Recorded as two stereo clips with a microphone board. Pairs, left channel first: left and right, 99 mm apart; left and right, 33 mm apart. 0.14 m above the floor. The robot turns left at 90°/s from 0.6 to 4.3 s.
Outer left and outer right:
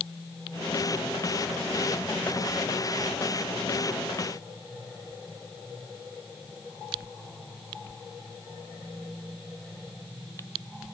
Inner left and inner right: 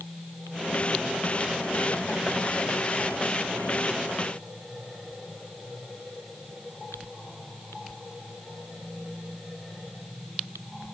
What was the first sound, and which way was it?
Only background noise.